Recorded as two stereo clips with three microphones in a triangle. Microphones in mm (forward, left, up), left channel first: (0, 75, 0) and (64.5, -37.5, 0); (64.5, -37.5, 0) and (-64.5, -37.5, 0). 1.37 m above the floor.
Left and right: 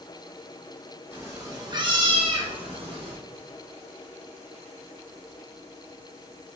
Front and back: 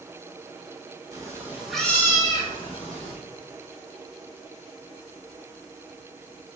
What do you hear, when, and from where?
1.1 s a cat meowing: 125° right, 0.8 m; by 3.1 s 20° right, 1.0 m